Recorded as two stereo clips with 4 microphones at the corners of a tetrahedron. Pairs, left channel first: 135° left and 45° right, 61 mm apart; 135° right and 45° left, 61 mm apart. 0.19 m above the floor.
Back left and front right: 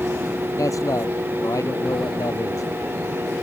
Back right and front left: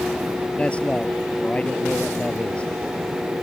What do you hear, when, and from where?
0.6 s a man speaking: 155° left